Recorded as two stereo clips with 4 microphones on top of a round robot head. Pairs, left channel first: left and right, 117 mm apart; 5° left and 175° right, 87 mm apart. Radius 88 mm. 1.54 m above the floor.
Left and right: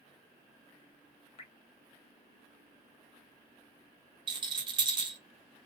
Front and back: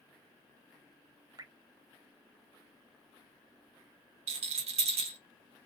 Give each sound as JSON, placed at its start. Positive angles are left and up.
{"t": 1.4, "sound": "dripping", "azimuth_deg": 135, "distance_m": 1.0}
{"t": 4.3, "sound": "a rattle", "azimuth_deg": -150, "distance_m": 1.0}